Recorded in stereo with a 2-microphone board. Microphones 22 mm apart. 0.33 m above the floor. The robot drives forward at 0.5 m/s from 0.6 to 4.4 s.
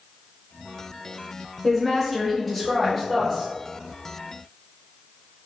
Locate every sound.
1.6 s a woman speaking: centre (ahead or behind), 0.9 m